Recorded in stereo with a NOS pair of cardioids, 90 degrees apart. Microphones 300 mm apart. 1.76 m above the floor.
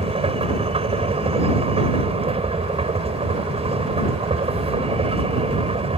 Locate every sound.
0.0 s a machine running: 20° right